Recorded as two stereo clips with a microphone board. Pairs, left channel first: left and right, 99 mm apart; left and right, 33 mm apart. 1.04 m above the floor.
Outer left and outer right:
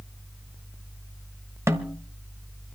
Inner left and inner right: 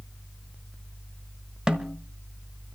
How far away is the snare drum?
About 1.3 m.